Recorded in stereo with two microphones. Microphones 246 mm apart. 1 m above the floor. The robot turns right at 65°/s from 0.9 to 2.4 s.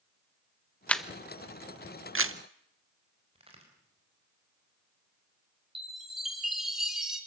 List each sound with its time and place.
0.9 s a camera shutter: 5° left (ahead or behind), 0.8 m; by 2.4 s 60° right (ahead or behind), 0.8 m
3.4 s a crack: 25° right (ahead or behind), 4.5 m
5.8 s a chime: centre (ahead or behind), 3.5 m